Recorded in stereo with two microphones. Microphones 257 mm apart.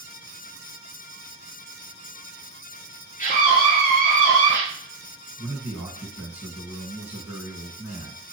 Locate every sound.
3.2 s a scream: 30° left (ahead or behind), 1.8 m; by 4.6 s 45° left (ahead or behind), 2.5 m
5.4 s a man speaking: 5° right (ahead or behind), 1.7 m